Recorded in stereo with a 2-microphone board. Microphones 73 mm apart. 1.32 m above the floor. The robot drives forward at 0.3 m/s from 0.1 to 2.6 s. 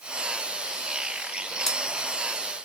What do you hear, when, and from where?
1.7 s scissors: 5° left (ahead or behind), 1.4 m